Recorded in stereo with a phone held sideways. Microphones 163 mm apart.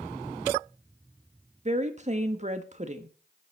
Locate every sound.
1.6 s a woman speaking: 45° right (ahead or behind), 1.5 m